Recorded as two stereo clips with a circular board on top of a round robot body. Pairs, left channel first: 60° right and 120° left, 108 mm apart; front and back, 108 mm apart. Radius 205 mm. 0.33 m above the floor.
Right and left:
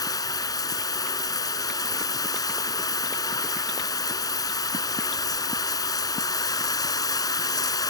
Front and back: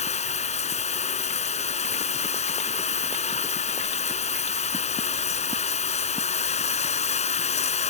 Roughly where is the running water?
Ahead.